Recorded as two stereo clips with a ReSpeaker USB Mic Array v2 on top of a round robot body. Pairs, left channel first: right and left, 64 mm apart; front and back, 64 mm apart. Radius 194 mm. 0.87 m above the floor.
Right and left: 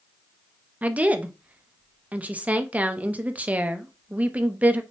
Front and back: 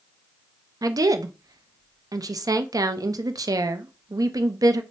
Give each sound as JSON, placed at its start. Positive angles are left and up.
{"t": 0.8, "sound": "a woman speaking", "azimuth_deg": 155, "distance_m": 0.6}